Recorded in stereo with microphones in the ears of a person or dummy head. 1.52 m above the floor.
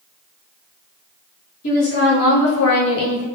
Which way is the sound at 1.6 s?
55° left (ahead or behind).